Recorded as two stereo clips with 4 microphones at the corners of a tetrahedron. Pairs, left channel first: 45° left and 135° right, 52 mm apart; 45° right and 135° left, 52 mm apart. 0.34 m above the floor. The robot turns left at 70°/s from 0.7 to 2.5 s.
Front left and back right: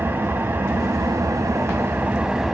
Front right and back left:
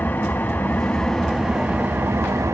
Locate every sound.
0.0 s an engine running: 95° right, 1.3 m; by 2.5 s 140° left, 1.3 m